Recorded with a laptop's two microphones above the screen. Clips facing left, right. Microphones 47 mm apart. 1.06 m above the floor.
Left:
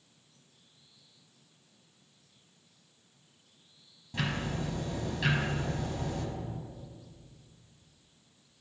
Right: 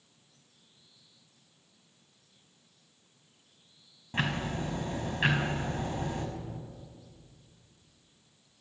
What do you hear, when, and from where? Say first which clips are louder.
4.1 s ticking: right 2 dB; 40° right (ahead or behind), 1.1 m